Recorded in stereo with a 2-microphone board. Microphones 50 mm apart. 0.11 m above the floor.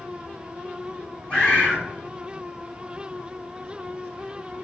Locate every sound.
1.3 s a bird: 30° left (ahead or behind), 1.9 m